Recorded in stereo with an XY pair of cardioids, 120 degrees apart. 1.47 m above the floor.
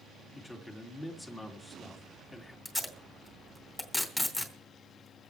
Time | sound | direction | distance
0.3 | a man speaking | 20° left | 2.5 m
2.6 | tape being pulled | 10° left | 2.5 m